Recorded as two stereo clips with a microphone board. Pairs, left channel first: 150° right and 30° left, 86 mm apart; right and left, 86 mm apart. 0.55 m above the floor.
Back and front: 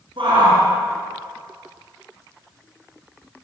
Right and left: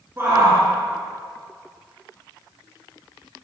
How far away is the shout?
About 7.5 m.